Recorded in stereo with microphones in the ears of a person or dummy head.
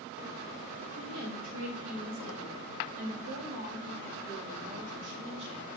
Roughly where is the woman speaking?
Right.